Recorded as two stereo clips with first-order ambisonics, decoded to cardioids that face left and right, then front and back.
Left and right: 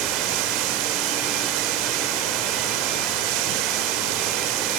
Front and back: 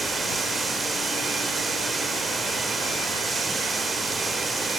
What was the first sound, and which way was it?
Running water, 105° right.